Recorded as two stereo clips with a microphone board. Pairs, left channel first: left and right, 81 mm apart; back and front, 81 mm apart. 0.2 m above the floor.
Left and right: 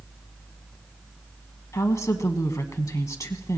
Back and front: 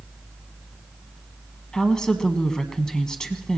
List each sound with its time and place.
1.7 s a woman speaking: 105° left, 1.2 m